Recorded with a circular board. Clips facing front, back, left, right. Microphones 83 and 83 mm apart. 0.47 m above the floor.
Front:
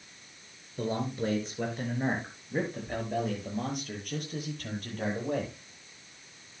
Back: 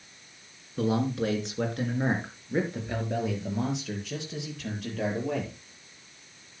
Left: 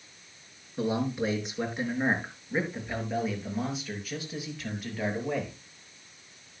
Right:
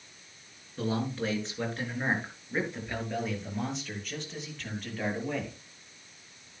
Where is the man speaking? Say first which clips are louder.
Back 5 dB, left 3 dB; 165° left, 5 m; by 5.5 s 175° left, 8 m.